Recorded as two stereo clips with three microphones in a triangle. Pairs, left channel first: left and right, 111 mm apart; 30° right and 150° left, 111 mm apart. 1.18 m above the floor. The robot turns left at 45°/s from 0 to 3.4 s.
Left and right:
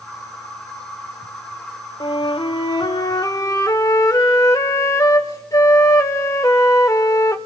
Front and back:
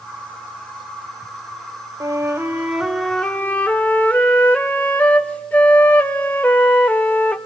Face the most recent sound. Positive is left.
turn(degrees=40)